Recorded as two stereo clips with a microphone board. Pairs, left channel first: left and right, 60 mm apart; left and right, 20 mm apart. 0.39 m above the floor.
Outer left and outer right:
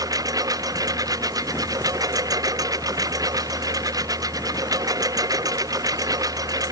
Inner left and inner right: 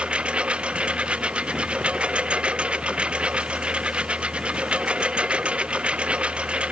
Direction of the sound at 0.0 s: 90° right.